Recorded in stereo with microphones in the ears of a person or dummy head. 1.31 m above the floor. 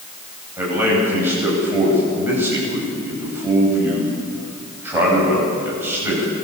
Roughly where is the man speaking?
Centre.